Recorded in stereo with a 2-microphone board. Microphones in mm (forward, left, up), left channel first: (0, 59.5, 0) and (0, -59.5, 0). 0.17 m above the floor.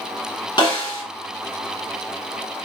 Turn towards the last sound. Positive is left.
turn(degrees=35)  # may be behind; listen again after turning